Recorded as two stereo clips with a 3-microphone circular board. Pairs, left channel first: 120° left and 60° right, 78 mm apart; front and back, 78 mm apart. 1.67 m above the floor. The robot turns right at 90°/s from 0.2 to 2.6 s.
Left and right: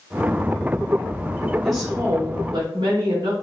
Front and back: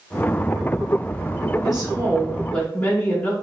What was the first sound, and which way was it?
A woman speaking, 155° right.